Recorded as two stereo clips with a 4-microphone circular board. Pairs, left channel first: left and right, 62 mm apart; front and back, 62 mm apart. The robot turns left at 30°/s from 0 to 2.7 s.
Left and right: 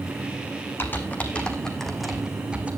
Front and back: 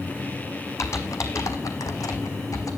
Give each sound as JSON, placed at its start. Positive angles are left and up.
{"t": 0.8, "sound": "typing on a keyboard", "azimuth_deg": 35, "distance_m": 1.7}